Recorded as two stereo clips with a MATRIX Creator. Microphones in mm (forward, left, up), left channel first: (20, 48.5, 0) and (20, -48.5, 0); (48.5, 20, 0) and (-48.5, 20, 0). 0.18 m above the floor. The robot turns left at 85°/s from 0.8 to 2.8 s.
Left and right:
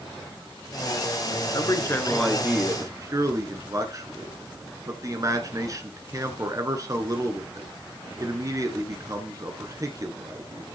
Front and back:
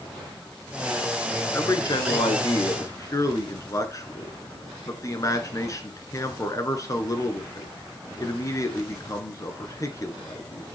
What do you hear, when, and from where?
1.5 s a man speaking: 60° left, 1.8 m; by 10.7 s 45° right, 1.8 m